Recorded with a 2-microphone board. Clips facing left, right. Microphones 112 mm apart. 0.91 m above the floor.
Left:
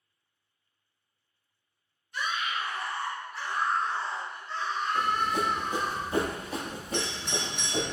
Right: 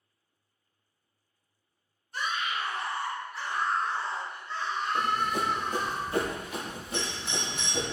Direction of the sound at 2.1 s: 35° right (ahead or behind).